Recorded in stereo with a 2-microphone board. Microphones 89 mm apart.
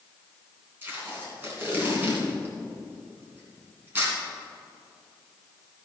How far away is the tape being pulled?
About 2.5 m.